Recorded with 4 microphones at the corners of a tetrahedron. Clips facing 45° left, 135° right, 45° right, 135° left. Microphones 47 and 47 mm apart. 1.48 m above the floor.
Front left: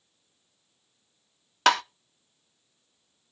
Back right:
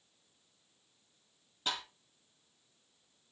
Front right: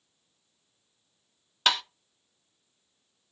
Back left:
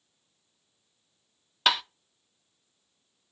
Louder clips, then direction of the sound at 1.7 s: Front left 17 dB, back left 1 dB; 50° left.